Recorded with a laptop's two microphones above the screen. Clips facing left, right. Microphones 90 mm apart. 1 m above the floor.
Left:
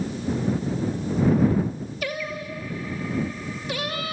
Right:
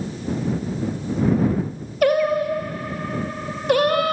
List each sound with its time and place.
2.0 s singing: 55° right (ahead or behind)